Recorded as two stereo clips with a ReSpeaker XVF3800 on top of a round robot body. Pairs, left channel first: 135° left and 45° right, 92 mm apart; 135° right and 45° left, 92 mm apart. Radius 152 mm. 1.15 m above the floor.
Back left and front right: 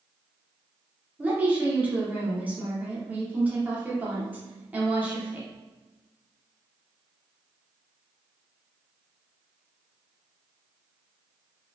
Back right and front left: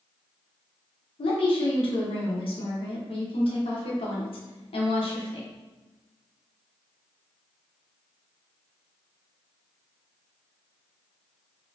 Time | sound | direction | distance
1.2 | a woman speaking | 120° right | 0.9 m